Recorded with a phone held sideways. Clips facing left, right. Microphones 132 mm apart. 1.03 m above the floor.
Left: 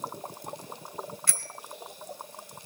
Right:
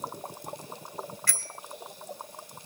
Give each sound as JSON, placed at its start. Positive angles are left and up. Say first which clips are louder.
{"t": 1.3, "sound": "a bicycle bell", "louder": "right 1 dB", "side_deg": 25, "distance_m": 2.0}